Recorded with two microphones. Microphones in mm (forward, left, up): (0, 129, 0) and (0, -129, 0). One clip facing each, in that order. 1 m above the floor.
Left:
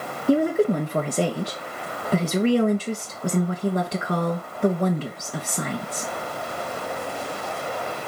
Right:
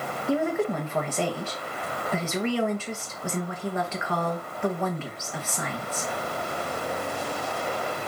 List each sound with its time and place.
0.3 s a woman speaking: 40° left (ahead or behind), 1.2 m